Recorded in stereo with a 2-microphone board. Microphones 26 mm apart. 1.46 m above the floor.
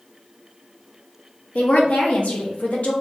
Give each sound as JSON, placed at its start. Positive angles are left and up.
{"t": 1.6, "sound": "a woman speaking", "side_deg": 70, "distance_m": 0.9}